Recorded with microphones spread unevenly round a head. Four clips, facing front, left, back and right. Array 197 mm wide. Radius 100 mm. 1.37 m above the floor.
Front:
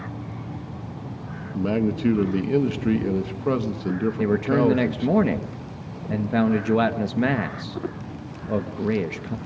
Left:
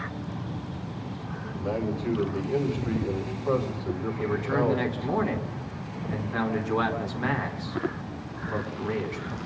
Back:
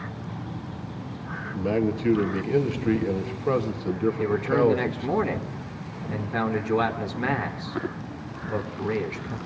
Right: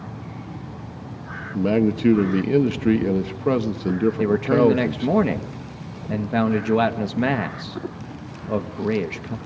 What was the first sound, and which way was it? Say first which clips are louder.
A man speaking: right 10 dB, front 2 dB; 70° right.